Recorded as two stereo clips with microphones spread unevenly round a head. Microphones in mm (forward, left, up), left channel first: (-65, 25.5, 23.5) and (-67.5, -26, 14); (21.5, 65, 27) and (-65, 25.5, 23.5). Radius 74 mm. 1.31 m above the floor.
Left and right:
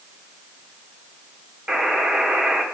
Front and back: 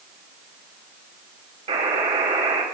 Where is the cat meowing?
I don't hear a cat meowing.